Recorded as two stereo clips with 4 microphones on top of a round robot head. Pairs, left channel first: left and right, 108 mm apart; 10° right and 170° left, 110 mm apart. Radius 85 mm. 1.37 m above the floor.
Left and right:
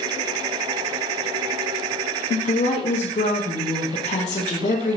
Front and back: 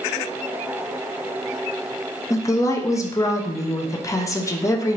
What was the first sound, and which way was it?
A woman speaking, 55° left.